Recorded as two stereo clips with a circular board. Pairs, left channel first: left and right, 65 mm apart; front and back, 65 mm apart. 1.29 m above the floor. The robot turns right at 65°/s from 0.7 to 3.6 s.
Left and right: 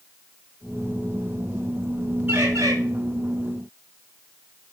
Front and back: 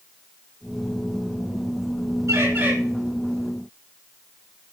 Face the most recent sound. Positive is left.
turn(degrees=-55)